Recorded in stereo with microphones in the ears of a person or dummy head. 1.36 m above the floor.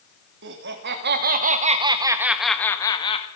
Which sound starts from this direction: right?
Laughter, at 0.4 s.